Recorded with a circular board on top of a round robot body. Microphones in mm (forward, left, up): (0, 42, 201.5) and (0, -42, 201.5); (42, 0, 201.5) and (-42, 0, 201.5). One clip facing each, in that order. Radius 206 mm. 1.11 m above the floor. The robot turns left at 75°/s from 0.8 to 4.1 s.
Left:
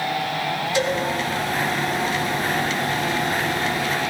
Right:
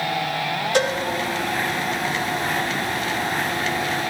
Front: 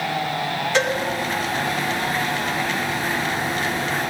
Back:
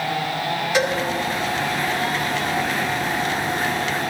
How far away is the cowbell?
About 6.5 m.